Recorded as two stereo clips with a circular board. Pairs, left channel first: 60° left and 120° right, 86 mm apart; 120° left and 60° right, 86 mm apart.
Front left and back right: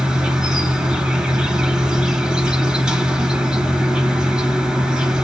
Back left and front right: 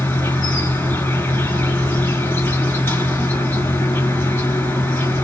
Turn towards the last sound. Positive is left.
turn(degrees=170)